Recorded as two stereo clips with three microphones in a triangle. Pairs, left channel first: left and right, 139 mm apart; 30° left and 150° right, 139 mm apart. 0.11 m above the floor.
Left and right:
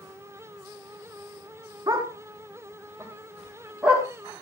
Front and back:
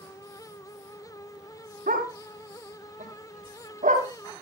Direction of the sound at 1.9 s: 155° right.